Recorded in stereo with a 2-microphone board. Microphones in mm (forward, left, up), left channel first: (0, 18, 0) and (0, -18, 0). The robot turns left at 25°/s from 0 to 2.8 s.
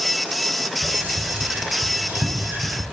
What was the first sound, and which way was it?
Whispering, 40° right (ahead or behind).